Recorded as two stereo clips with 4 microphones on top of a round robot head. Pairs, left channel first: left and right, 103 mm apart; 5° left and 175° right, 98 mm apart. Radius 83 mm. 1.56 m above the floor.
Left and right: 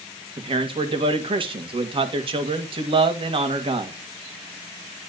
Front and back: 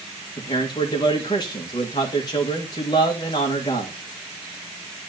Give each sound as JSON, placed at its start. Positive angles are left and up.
{"t": 0.4, "sound": "a man speaking", "azimuth_deg": -55, "distance_m": 1.7}